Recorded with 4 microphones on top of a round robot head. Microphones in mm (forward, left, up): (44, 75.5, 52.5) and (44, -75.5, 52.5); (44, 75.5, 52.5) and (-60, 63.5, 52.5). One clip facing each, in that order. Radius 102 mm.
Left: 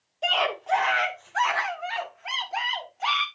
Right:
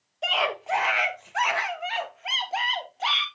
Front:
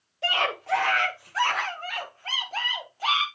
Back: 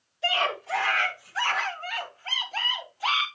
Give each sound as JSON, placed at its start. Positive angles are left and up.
{"t": 0.2, "sound": "a scream", "azimuth_deg": 0, "distance_m": 1.9}